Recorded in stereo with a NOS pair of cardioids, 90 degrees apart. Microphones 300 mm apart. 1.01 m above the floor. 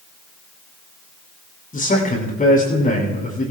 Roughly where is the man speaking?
Ahead left.